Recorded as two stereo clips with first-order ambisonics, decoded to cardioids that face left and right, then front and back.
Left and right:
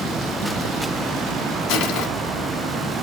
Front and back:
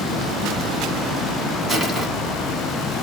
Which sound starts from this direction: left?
Crushing, at 1.7 s.